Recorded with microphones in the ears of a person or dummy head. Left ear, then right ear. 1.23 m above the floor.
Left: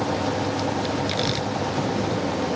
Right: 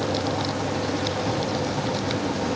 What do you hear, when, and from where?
Only background noise.